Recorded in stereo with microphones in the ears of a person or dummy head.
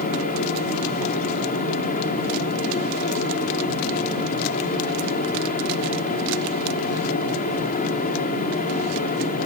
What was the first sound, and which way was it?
A fan, 40° left (ahead or behind).